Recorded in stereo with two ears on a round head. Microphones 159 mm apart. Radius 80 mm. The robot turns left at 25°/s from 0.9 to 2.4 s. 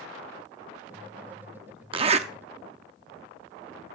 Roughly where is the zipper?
Right.